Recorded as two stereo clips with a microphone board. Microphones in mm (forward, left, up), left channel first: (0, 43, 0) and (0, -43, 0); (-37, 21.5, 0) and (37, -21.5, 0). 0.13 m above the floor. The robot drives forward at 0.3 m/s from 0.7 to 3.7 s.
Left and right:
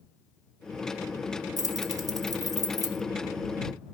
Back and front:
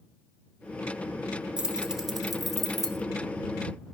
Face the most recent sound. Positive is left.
turn(degrees=-135)